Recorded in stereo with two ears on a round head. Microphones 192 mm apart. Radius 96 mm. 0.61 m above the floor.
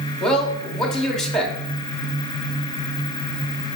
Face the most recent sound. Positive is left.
turn(degrees=5)  # may be behind; listen again after turning